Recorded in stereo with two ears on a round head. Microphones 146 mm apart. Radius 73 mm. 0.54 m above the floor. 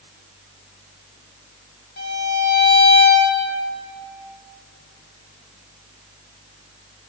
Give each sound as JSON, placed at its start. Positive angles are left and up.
{"t": 2.0, "sound": "a violin", "side_deg": 80, "distance_m": 2.5}